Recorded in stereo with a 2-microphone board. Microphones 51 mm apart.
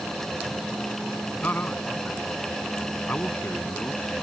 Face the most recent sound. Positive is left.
turn(degrees=35)  # may be behind; listen again after turning